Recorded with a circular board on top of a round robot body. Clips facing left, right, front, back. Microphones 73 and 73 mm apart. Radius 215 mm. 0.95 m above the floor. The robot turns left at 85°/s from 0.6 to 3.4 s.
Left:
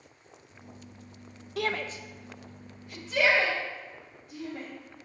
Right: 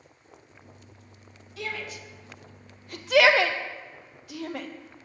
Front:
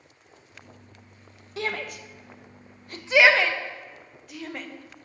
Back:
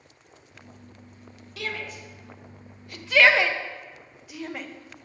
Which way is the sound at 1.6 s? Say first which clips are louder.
Left 4 dB, front 3 dB; 65° left.